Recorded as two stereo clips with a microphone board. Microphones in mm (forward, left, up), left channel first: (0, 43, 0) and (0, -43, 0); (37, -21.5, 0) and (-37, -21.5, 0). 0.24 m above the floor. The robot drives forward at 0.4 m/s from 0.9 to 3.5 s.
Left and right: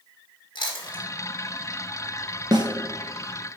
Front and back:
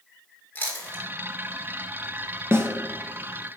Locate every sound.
0.6 s chewing: 65° left, 1.9 m
2.5 s a snare drum: 120° right, 1.0 m; by 2.7 s 125° right, 1.0 m